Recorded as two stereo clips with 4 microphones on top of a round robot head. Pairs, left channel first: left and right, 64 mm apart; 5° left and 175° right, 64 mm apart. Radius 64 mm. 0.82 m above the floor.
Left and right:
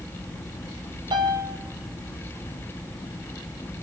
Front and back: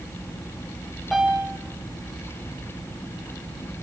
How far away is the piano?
About 2 m.